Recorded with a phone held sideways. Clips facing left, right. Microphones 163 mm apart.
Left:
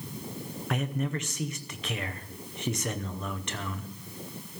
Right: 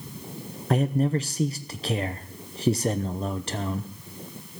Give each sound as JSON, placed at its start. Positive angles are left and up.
{"t": 0.7, "sound": "a man speaking", "side_deg": -35, "distance_m": 0.7}